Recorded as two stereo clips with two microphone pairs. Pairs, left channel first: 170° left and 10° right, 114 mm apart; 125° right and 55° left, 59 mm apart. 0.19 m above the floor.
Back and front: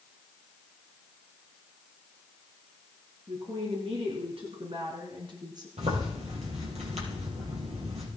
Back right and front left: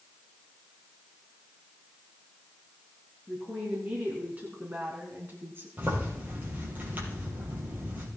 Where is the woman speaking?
15° right, 3.5 m; by 5.7 s 25° left, 2.5 m.